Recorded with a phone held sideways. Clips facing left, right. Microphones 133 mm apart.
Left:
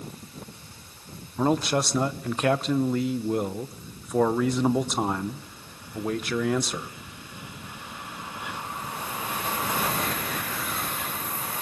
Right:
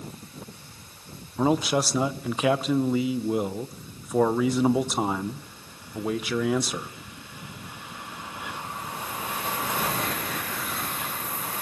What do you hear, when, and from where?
1.4 s a man speaking: 5° right (ahead or behind), 0.7 m